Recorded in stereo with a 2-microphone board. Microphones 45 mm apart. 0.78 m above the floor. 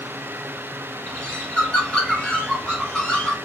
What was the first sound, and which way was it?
A bird, 15° left (ahead or behind).